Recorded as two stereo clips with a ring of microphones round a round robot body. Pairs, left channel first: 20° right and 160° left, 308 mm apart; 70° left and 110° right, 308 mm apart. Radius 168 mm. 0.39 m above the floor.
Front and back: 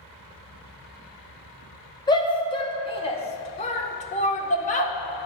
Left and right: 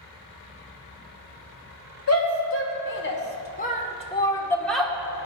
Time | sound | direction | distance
2.1 | a shout | 50° left | 2 m